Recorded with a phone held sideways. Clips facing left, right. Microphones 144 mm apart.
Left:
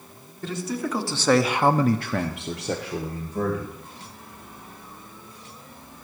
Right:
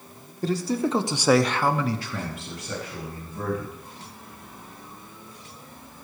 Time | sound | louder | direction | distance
0.4 | a man speaking | right 4 dB | 35° right (ahead or behind) | 1.6 m